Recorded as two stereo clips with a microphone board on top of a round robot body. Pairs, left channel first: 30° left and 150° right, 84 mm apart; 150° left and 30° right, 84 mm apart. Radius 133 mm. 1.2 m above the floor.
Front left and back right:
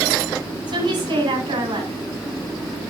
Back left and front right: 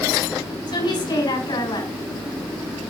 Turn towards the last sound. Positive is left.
turn(degrees=180)